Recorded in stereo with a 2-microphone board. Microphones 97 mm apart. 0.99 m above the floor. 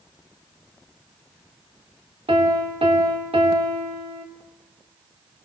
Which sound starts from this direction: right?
A piano, at 2.3 s.